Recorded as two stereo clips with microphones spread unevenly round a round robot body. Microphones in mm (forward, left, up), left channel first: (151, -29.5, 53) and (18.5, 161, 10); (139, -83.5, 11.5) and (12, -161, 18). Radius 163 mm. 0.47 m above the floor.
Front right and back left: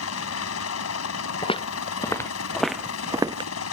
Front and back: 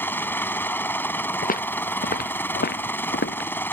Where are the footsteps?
10° left; by 3.5 s 55° left.